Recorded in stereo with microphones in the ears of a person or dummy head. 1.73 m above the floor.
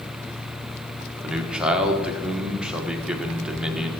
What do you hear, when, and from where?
1.2 s a man speaking: 10° right (ahead or behind), 1.4 m